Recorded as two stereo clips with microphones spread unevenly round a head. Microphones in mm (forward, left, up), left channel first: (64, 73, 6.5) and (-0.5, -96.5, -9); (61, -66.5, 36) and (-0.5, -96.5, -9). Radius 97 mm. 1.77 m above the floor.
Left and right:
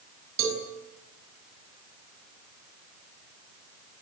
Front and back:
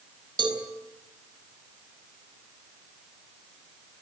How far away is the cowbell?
About 5 m.